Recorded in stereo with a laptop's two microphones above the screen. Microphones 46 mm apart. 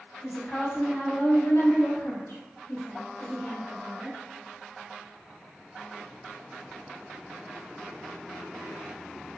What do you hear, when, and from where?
0.2 s a woman speaking: 35° left (ahead or behind), 1.3 m; by 4.2 s 25° left (ahead or behind), 1.3 m